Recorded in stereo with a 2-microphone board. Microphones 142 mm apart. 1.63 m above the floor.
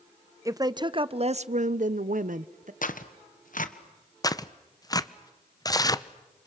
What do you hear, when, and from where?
0.5 s a woman speaking: 25° right (ahead or behind), 0.9 m; by 2.7 s 65° right (ahead or behind), 1.0 m
2.8 s tearing paper: 70° left (ahead or behind), 1.5 m
4.2 s tearing paper: 25° left (ahead or behind), 0.8 m